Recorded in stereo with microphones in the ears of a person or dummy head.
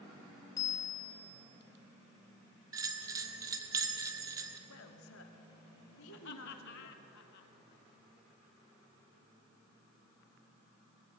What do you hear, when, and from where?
0.6 s a bicycle bell: 20° left (ahead or behind), 3.5 m
2.7 s a bell: 15° right (ahead or behind), 1.3 m
4.7 s a woman speaking: 70° left (ahead or behind), 1.9 m
6.1 s laughter: 55° left (ahead or behind), 1.4 m